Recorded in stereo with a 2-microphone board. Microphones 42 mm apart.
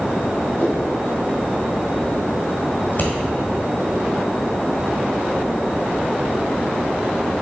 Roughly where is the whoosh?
Left.